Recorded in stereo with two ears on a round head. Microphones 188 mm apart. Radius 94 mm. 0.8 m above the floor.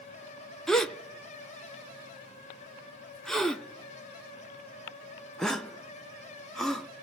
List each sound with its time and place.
0.7 s a gasp: 5° left (ahead or behind), 0.5 m